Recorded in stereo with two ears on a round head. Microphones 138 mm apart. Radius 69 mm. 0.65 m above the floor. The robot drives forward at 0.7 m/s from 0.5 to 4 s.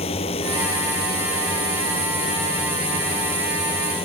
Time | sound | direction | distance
0.0 | a drone | 40° left (ahead or behind) | ?